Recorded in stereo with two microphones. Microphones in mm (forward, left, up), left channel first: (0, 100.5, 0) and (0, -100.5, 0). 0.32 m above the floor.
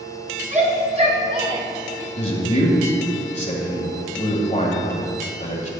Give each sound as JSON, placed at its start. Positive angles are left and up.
{"t": 0.5, "sound": "a shout", "side_deg": -35, "distance_m": 2.5}
{"t": 2.2, "sound": "a man speaking", "side_deg": 35, "distance_m": 1.7}